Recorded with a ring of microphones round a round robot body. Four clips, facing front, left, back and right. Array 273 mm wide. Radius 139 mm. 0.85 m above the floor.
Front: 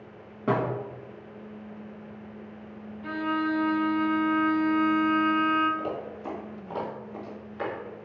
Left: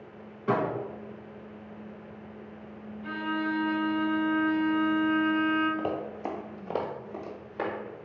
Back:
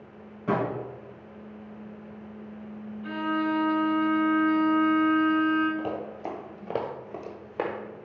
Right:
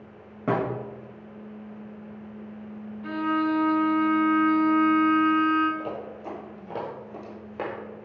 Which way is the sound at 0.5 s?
60° right.